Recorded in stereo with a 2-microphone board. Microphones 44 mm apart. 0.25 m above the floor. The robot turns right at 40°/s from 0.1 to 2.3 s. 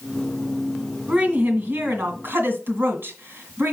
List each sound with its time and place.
1.1 s a woman speaking: 140° right, 2 m; by 3.7 s 90° right, 2 m